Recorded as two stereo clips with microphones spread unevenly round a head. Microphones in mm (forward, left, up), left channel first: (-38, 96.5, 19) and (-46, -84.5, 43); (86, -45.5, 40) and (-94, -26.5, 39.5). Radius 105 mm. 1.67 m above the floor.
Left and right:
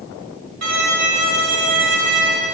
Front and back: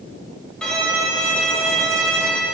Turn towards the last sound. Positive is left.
turn(degrees=-90)